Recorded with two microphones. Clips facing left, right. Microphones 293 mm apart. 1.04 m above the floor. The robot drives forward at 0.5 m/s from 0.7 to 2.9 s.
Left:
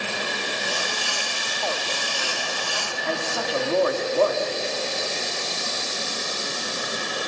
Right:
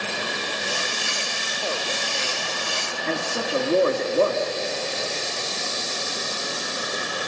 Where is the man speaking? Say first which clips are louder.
Right 1 dB; 30° right (ahead or behind), 2 m.